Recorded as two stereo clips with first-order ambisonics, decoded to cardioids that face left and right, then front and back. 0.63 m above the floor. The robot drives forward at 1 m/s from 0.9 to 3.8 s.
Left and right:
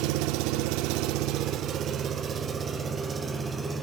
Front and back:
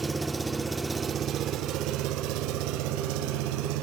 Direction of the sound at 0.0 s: 105° right.